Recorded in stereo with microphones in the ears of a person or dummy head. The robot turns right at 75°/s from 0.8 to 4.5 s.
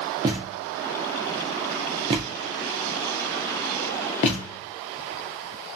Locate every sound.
0.2 s a thud: 15° right (ahead or behind), 0.6 m; by 4.6 s 25° left (ahead or behind), 0.6 m